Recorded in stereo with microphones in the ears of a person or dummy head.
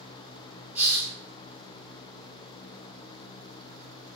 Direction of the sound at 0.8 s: 10° right (ahead or behind).